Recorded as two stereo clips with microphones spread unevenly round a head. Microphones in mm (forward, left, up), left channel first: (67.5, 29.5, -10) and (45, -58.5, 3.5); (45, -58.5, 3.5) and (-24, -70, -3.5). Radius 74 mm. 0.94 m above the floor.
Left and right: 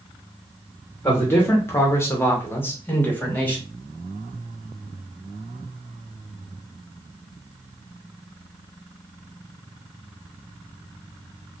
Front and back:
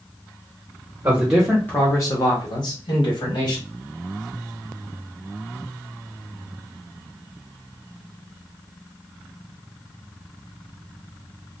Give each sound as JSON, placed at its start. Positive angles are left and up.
{"t": 1.0, "sound": "a man speaking", "azimuth_deg": 130, "distance_m": 0.8}